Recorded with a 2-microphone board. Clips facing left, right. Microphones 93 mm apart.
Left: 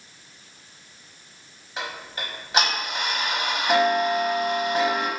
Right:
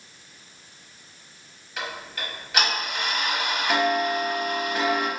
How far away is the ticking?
About 0.9 m.